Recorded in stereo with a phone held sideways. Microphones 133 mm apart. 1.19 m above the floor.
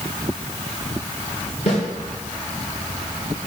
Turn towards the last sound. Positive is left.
turn(degrees=60)  # may be behind; listen again after turning